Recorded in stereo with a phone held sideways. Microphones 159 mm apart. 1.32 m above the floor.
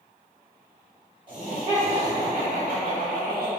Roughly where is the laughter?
Right.